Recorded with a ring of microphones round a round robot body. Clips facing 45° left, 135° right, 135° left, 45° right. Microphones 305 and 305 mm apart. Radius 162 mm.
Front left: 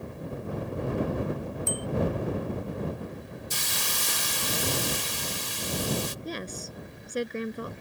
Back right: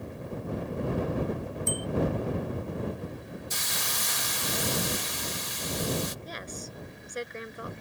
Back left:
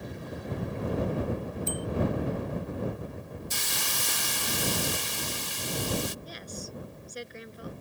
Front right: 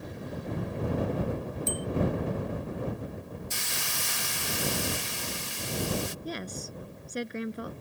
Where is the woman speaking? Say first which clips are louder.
Front left 5 dB, front right 5 dB; 10° right.